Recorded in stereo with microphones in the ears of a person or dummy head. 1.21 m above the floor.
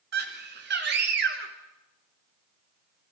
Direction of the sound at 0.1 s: 50° right (ahead or behind).